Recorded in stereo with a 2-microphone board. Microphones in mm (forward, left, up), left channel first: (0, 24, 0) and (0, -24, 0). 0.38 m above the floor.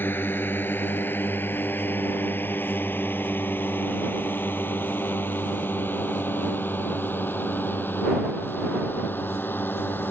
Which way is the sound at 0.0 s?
45° left (ahead or behind).